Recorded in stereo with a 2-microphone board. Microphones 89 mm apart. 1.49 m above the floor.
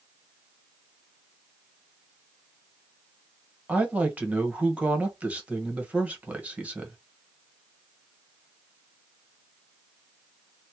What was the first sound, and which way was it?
A woman speaking, 15° right (ahead or behind).